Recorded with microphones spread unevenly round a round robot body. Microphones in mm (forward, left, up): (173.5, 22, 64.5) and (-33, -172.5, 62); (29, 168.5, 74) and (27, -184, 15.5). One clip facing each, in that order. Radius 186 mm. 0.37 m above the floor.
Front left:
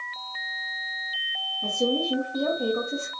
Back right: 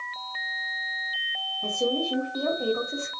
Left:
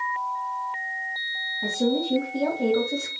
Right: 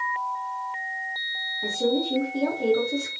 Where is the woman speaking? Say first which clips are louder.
Front left 2 dB, left 1 dB; 115° left, 3 m.